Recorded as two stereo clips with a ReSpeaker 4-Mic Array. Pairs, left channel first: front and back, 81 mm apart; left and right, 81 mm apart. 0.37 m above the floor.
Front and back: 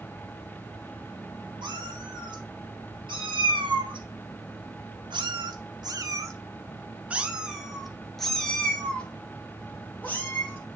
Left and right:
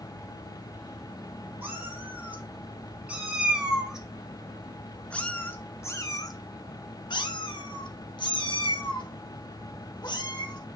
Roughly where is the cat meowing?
Behind right.